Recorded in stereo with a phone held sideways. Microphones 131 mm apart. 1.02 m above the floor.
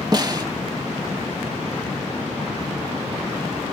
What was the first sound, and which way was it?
A snare drum, 35° right (ahead or behind).